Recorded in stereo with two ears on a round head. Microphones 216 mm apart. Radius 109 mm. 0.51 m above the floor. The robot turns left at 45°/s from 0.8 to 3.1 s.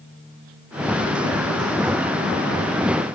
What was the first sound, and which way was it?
Only background noise.